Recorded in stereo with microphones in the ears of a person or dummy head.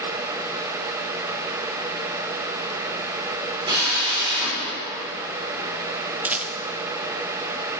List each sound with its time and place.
3.7 s a drill: 30° right (ahead or behind), 4 m
6.2 s a rattle: centre (ahead or behind), 0.5 m